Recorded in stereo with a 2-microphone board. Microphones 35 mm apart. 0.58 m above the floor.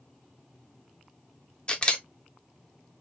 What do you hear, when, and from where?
1.7 s a camera shutter: 30° left (ahead or behind), 0.8 m